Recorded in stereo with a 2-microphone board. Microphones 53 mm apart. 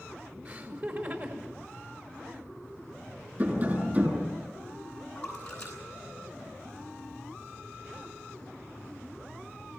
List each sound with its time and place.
0.5 s laughter: 40° right (ahead or behind), 5 m
3.4 s tapping: 35° right (ahead or behind), 8 m
5.2 s a splash: 15° left (ahead or behind), 9.5 m